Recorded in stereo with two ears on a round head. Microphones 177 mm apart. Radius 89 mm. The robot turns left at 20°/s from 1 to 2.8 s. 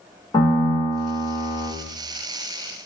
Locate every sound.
0.3 s a piano: 20° left (ahead or behind), 1.4 m; by 1.7 s 35° left (ahead or behind), 1.4 m